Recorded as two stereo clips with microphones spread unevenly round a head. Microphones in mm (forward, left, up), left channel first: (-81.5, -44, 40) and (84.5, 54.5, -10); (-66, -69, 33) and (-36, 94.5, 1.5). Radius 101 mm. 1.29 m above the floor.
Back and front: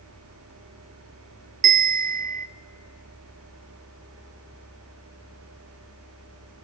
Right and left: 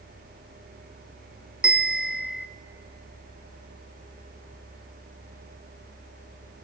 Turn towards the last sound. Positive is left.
turn(degrees=0)